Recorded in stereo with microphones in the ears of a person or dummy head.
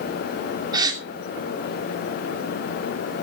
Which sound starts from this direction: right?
A gasp, at 0.7 s.